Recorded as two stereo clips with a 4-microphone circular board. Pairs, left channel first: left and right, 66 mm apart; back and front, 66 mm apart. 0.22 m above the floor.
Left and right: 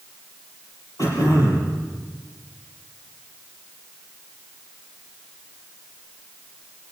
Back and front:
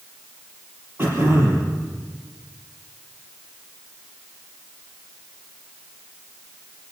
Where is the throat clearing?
55° left, 5.5 m.